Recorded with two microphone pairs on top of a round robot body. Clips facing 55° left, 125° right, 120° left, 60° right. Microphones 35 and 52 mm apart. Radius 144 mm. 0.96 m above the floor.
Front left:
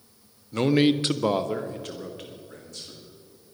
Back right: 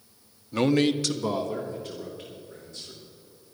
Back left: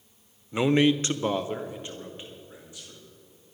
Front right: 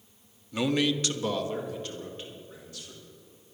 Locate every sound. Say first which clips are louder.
0.5 s a man speaking: front left 2 dB, back left 5 dB; 155° left, 0.8 m; by 3.0 s 50° left, 3 m